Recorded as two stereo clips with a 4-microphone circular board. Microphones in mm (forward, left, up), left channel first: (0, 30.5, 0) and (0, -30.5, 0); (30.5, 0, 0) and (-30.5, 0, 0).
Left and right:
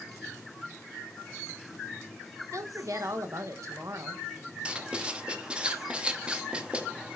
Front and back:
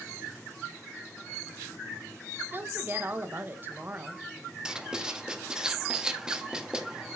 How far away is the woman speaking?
About 0.9 m.